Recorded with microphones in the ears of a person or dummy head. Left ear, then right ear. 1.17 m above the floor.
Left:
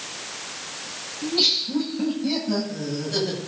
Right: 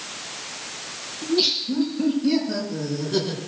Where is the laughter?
90° left, 6.5 m; by 3.4 s 85° left, 8 m.